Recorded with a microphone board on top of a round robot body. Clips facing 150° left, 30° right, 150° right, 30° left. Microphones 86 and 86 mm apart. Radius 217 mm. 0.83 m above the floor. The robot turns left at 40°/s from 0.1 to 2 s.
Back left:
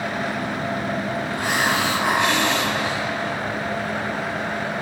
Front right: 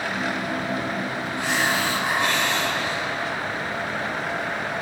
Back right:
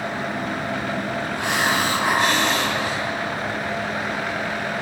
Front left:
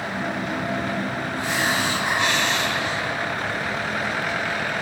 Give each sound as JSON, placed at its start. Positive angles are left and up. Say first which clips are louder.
{"t": 1.4, "sound": "a hiss", "louder": "back left 1 dB, back right 2 dB", "azimuth_deg": -170, "distance_m": 2.5}